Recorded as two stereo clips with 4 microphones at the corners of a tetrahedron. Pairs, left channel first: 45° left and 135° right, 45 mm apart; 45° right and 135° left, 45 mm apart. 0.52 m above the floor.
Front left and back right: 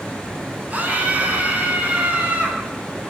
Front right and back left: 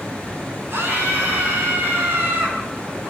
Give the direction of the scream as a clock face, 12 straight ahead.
6 o'clock.